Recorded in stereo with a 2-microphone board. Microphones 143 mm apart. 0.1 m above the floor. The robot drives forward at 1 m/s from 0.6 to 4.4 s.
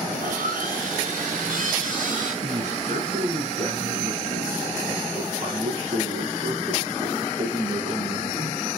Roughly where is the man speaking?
Right.